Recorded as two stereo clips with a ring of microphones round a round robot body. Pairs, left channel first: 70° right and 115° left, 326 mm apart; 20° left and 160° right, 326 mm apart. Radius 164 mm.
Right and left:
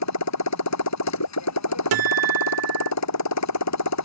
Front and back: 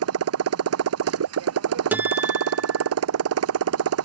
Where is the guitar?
120° left.